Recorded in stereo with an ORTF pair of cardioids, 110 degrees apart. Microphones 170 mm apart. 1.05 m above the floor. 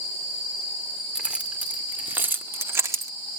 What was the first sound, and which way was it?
Keys jangling, 5° right.